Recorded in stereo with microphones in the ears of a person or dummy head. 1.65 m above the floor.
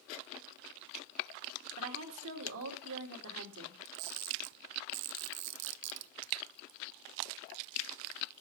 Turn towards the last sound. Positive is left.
turn(degrees=-70)  # may be behind; listen again after turning